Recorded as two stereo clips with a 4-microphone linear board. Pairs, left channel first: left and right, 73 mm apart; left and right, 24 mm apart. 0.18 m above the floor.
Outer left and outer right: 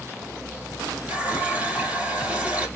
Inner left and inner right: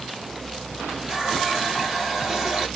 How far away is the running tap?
About 3 m.